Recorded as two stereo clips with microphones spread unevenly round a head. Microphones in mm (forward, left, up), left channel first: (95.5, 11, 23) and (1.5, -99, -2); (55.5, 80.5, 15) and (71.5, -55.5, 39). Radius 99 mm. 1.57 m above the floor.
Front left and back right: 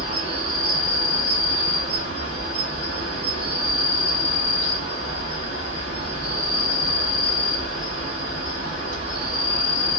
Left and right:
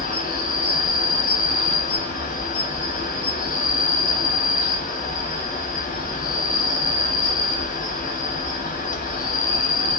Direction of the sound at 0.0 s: 85° left.